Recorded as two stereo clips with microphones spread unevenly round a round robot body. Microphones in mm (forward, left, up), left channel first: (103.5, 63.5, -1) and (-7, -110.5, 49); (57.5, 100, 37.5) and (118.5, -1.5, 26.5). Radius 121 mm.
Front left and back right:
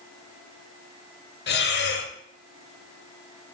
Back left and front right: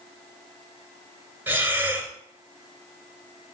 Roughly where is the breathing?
Ahead.